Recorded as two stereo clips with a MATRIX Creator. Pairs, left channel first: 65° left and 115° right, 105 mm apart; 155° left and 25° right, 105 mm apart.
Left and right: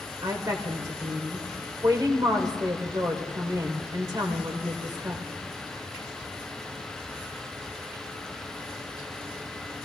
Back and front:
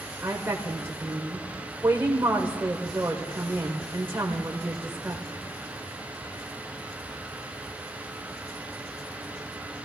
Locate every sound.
0.2 s a woman speaking: 80° right, 1.4 m